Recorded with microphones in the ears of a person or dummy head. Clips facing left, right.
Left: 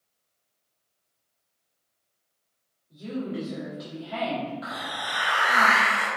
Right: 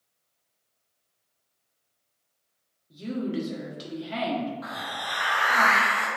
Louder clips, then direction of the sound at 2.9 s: Right 2 dB; 30° right (ahead or behind).